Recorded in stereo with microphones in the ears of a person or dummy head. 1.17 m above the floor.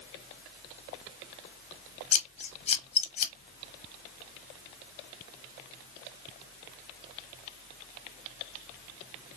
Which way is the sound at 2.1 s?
40° left (ahead or behind).